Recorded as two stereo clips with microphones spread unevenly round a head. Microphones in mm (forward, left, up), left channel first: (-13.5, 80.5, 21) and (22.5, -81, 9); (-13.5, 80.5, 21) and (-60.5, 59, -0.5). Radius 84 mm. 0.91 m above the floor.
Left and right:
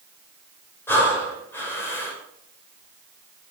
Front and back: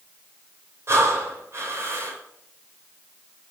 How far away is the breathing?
About 5 m.